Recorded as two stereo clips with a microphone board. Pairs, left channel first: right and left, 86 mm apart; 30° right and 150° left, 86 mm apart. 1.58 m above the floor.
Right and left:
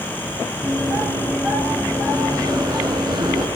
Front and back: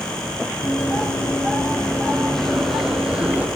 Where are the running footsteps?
15° left, 4 m; by 3.5 s 80° left, 4 m.